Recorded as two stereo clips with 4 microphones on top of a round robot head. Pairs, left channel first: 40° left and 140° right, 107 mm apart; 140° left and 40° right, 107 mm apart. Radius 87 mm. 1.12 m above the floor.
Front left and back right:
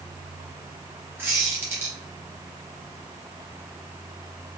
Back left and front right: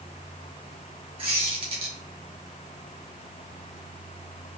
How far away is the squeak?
About 0.6 m.